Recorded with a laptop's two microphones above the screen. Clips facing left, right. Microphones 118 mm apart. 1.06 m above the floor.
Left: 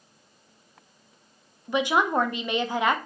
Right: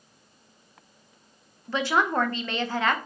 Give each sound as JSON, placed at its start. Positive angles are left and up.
{"t": 1.7, "sound": "a woman speaking", "side_deg": 15, "distance_m": 0.6}